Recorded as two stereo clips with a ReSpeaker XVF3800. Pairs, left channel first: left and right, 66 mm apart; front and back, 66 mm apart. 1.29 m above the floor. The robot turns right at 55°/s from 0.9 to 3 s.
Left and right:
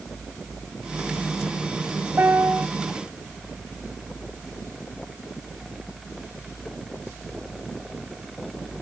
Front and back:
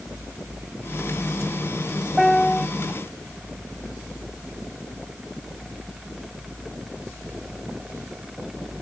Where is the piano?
90° right; by 2.7 s 60° right.